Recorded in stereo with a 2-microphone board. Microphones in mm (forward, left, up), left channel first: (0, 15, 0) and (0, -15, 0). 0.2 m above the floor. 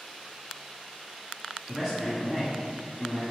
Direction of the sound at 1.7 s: Centre (ahead or behind).